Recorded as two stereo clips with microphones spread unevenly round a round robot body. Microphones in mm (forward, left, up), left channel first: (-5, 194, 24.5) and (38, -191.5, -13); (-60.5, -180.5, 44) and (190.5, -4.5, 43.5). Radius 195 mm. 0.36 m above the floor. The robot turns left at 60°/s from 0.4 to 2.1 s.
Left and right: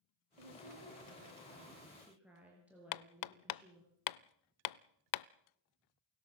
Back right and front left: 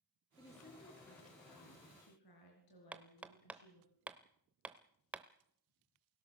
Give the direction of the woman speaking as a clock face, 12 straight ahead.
2 o'clock.